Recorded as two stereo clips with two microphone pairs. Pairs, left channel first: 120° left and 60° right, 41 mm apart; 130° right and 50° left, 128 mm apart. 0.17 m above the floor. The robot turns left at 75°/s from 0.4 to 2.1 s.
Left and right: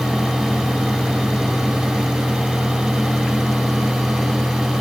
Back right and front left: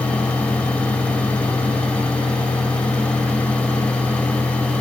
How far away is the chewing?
I don't hear chewing.